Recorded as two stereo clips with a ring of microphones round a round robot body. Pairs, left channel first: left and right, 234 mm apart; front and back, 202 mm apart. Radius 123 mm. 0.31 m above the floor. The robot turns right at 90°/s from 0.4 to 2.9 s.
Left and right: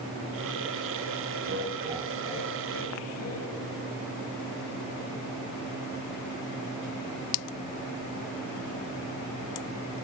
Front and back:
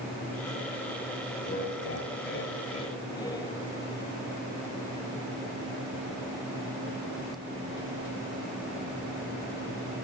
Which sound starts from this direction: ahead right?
Laughter, at 1.4 s.